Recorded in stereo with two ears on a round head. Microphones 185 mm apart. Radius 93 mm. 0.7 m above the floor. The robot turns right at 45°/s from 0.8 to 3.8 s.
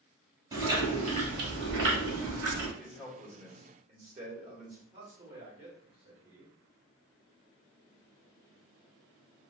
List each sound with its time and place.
0.5 s chewing: 160° right, 1.2 m; by 2.7 s 75° right, 1.2 m
2.8 s a man speaking: 175° left, 1.4 m; by 4.8 s 140° right, 1.4 m
4.9 s a man speaking: 25° right (ahead or behind), 1.5 m